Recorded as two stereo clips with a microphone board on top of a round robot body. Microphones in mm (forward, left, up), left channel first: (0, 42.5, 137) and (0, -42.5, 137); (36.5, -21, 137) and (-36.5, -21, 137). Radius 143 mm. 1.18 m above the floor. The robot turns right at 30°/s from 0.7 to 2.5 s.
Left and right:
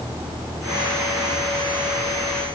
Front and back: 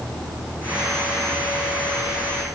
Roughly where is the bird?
I don't hear a bird.